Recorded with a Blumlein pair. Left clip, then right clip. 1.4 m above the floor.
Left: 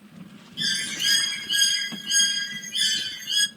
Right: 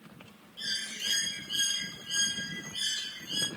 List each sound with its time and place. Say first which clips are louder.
0.6 s a bird: left 9 dB; 30° left, 1.0 m